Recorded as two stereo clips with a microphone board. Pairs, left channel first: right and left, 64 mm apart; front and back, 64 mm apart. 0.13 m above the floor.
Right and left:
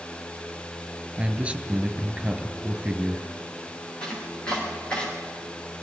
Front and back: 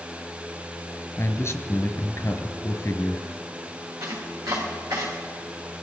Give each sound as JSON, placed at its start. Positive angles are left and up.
{"t": 1.2, "sound": "a man speaking", "azimuth_deg": 25, "distance_m": 1.6}
{"t": 4.0, "sound": "chopping", "azimuth_deg": -160, "distance_m": 6.0}